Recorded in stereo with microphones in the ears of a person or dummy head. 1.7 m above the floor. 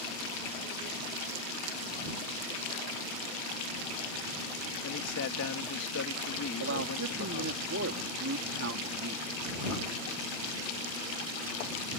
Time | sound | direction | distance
4.8 | a man speaking | 80° left | ?
6.6 | a man speaking | 75° right (ahead or behind) | ?